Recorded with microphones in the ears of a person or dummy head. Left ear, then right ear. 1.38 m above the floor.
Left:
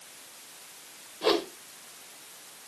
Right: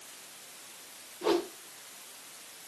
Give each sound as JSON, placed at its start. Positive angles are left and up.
{"t": 1.2, "sound": "a whoosh", "side_deg": 35, "distance_m": 1.0}